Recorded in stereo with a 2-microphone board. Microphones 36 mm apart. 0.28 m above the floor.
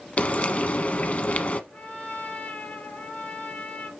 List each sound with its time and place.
0.2 s frying: 45° left (ahead or behind), 1.2 m
1.7 s a trumpet: 55° left (ahead or behind), 4 m